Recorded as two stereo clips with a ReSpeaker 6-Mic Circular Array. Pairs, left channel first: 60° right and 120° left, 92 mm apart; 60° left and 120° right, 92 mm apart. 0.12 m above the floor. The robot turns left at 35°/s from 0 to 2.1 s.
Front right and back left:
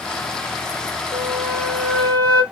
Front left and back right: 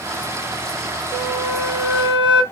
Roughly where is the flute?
Behind left.